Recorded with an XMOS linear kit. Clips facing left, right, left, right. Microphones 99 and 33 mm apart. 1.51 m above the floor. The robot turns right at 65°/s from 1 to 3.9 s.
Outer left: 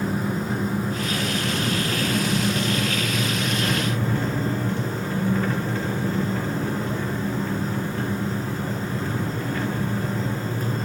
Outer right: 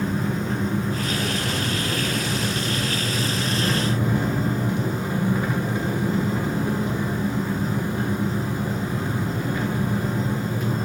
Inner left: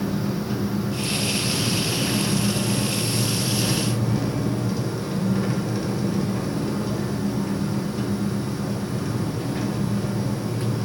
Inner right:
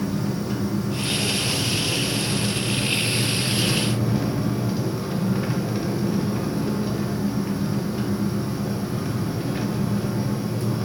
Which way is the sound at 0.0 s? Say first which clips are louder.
Even, even; 5° left.